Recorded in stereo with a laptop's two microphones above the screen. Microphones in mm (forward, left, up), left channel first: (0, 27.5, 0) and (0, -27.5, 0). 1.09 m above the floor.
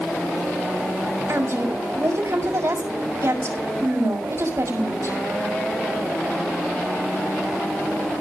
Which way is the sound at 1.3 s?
60° right (ahead or behind).